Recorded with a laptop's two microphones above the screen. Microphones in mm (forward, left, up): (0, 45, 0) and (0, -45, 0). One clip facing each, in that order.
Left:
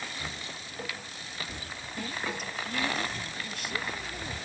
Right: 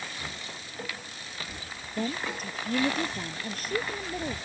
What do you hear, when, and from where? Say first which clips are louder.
2.0 s a woman speaking: right 4 dB; 40° right (ahead or behind)